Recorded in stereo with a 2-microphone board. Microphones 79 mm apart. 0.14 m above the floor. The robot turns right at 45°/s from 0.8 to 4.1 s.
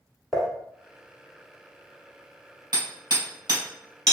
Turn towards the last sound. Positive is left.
turn(degrees=-40)  # may be behind; listen again after turning